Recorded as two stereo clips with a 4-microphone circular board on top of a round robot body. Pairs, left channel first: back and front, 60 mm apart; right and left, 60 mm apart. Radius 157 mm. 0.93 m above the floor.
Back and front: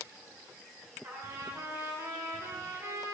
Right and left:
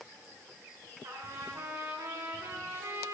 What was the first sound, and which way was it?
A trumpet, 50° left.